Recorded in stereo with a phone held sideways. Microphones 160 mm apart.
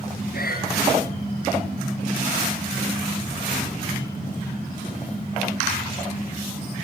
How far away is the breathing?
About 6 m.